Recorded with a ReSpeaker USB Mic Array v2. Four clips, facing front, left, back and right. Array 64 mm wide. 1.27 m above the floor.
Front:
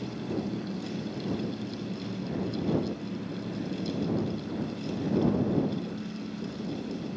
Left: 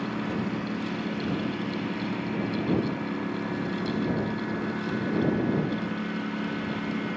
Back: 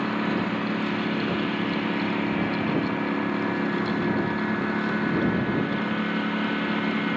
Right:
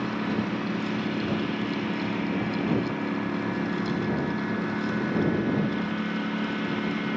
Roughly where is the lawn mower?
Behind.